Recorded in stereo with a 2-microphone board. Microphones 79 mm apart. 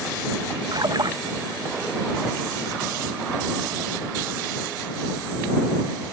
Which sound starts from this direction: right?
A splash, at 0.7 s.